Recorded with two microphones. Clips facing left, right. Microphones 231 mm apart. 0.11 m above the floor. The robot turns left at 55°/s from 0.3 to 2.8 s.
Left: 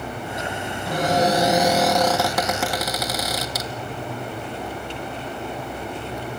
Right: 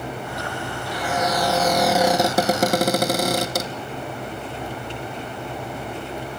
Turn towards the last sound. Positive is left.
turn(degrees=-50)